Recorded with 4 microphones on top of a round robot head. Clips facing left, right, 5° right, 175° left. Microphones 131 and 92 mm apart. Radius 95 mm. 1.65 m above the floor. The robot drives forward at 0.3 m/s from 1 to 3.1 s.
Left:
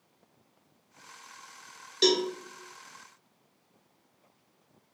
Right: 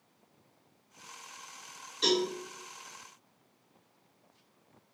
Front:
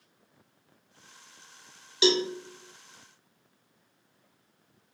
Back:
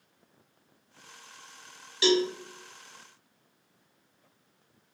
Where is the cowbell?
60° left, 0.7 m; by 2.2 s 65° left, 0.7 m.